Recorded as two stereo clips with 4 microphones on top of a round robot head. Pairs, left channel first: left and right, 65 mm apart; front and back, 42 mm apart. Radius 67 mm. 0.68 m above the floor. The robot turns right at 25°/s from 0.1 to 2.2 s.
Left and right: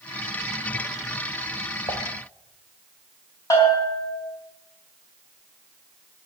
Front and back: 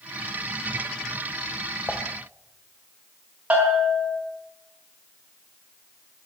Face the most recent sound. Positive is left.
turn(degrees=120)